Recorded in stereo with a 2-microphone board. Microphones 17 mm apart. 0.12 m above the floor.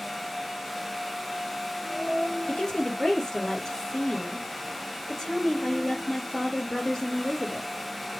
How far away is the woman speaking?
About 3 m.